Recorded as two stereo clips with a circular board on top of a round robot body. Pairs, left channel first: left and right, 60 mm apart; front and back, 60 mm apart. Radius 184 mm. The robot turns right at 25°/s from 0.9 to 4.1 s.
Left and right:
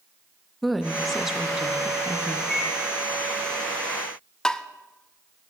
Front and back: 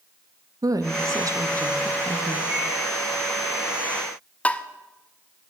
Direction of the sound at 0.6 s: Straight behind.